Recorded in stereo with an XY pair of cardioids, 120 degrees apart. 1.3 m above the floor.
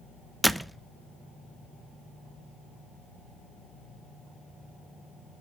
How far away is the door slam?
About 0.6 m.